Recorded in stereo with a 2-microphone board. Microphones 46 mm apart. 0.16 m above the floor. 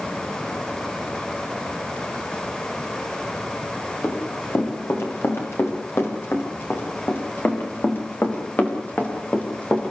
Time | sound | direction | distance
4.0 | running footsteps | 70° left (ahead or behind) | 9.5 m